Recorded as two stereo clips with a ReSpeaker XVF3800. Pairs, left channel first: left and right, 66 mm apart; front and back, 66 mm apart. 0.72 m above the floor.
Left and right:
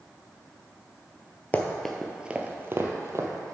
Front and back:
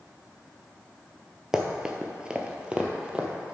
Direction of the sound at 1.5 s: 115° left.